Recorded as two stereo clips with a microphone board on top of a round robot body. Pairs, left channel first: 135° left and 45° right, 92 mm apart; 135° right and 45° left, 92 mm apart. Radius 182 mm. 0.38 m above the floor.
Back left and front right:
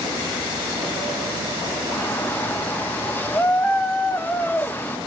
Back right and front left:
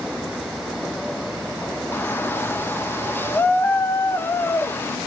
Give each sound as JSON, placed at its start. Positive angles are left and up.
{"t": 1.9, "sound": "a shout", "azimuth_deg": -175, "distance_m": 1.1}